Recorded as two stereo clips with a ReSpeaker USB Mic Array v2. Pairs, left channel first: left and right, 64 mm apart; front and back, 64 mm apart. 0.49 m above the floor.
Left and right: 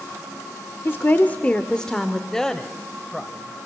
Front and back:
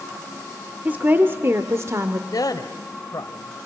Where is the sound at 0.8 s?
125° left, 1.6 m; by 2.2 s 175° left, 1.7 m.